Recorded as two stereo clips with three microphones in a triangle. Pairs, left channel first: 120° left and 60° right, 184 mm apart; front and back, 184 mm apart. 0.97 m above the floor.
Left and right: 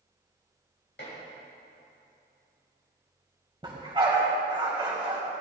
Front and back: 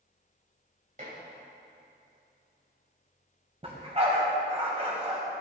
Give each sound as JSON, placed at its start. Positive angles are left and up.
{"t": 1.0, "sound": "dishes clattering", "azimuth_deg": 135, "distance_m": 4.0}
{"t": 3.6, "sound": "a dog barking", "azimuth_deg": -125, "distance_m": 2.0}